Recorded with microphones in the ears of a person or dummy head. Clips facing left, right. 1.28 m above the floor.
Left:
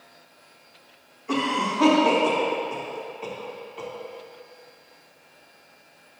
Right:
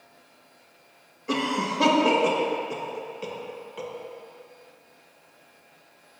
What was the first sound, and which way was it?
A cough, 55° right (ahead or behind).